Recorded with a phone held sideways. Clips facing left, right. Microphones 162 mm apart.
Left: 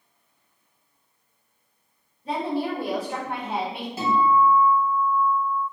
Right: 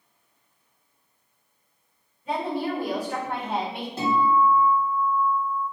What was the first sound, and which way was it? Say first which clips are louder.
A woman speaking: left 1 dB; 40° left (ahead or behind).